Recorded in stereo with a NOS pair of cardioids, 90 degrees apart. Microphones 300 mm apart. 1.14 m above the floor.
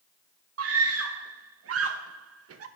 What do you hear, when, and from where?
0.6 s a scream: 50° right, 0.9 m